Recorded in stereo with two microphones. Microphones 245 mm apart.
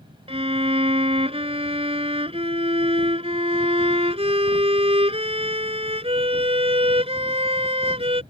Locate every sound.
0.3 s a violin: 25° right (ahead or behind)